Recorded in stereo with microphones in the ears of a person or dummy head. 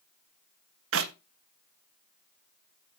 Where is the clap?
65° right (ahead or behind), 1.3 m.